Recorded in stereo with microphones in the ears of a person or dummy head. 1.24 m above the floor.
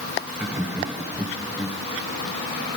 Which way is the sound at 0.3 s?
15° right (ahead or behind).